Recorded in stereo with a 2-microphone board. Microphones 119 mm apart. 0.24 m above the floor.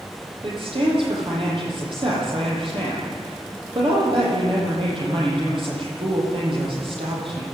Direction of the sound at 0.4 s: 50° right (ahead or behind).